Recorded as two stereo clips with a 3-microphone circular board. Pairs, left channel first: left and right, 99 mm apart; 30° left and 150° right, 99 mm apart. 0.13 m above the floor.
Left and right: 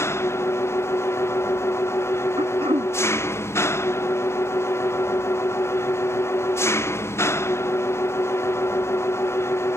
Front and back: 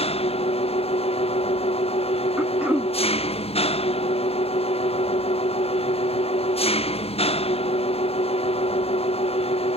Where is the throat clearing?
75° right.